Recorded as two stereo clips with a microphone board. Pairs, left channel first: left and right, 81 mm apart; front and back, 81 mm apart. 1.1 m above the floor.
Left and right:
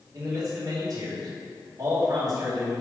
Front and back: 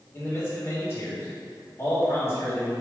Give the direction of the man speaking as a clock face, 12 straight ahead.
2 o'clock.